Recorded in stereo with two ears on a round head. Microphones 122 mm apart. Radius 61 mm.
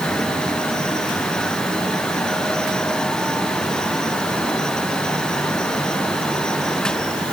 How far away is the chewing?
No chewing in this recording.